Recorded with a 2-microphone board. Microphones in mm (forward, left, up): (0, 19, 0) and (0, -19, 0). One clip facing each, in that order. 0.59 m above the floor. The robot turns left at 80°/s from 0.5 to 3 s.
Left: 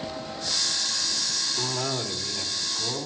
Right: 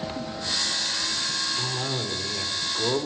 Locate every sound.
1.6 s a cough: 35° left, 1.7 m; by 3.1 s 80° right, 1.7 m